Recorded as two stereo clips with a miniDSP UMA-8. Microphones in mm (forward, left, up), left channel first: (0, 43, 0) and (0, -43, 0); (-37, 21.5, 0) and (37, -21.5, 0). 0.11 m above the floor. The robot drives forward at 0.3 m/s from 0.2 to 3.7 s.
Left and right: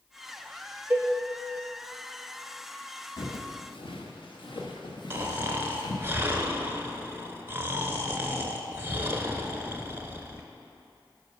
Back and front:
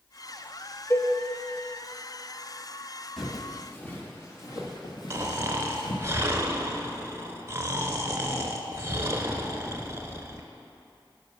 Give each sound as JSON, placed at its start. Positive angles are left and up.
{"t": 0.9, "sound": "a cowbell", "azimuth_deg": -155, "distance_m": 0.7}
{"t": 3.2, "sound": "footsteps", "azimuth_deg": 60, "distance_m": 1.6}
{"t": 5.1, "sound": "snoring", "azimuth_deg": -55, "distance_m": 0.5}